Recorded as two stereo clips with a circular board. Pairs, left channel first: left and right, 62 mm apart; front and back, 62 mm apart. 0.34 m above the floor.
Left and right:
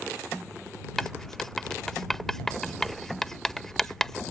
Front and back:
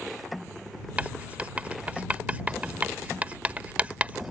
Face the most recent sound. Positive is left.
turn(degrees=165)